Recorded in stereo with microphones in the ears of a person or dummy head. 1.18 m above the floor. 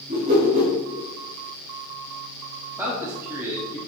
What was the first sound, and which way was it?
A whoosh, 35° right (ahead or behind).